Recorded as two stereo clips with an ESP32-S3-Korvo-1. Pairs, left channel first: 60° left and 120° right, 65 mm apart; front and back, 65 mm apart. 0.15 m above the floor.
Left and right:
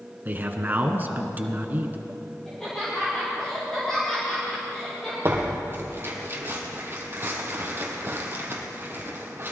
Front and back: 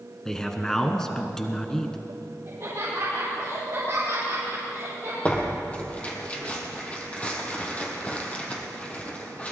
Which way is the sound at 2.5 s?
140° left.